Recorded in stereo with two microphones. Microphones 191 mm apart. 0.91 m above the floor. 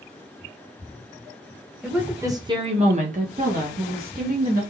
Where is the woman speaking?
5° right (ahead or behind), 0.9 m; by 4.6 s 50° right (ahead or behind), 1.4 m.